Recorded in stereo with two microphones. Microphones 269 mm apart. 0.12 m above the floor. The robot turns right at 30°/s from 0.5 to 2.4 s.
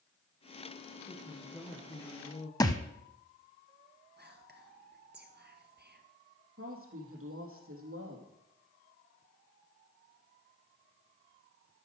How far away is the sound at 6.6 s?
About 3.5 m.